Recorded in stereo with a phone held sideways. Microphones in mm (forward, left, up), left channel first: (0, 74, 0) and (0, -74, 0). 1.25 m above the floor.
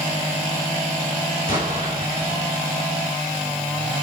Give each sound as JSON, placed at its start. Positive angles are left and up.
{"t": 1.5, "sound": "an explosion", "side_deg": 60, "distance_m": 6.5}